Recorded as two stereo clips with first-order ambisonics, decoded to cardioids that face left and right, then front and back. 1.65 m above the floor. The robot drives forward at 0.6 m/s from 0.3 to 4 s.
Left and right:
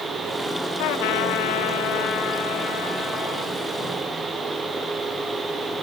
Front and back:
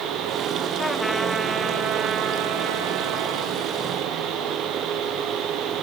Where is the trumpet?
80° left, 0.9 m; by 3.5 s 150° left, 1.7 m.